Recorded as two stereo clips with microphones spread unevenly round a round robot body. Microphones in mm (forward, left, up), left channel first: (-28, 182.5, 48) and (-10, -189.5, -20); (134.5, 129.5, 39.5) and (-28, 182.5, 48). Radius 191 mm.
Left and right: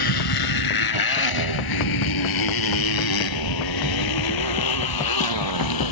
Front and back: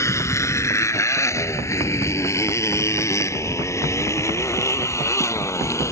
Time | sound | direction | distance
0.0 | a motorcycle | 55° left | ?